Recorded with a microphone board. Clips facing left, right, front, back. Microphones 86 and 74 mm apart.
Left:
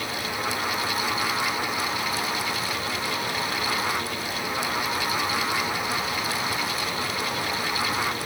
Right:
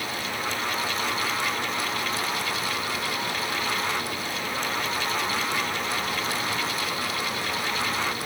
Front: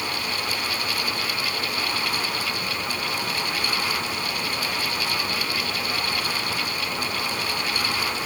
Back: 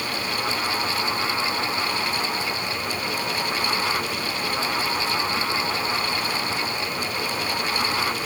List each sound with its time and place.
Only background noise.